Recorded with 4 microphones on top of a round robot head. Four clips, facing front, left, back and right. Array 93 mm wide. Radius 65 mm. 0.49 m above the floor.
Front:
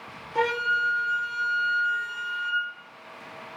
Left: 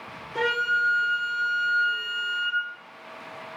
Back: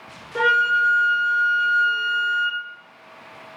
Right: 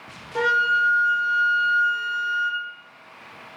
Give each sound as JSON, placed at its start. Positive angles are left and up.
{"t": 0.3, "sound": "a flute", "azimuth_deg": -155, "distance_m": 2.5}